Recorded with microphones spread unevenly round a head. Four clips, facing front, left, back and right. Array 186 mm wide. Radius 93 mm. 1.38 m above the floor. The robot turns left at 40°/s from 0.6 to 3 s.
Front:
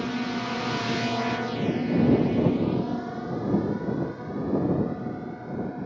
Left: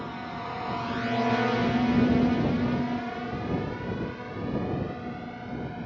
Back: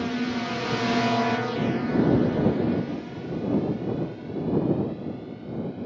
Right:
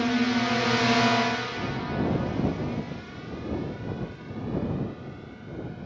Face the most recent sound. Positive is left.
turn(degrees=35)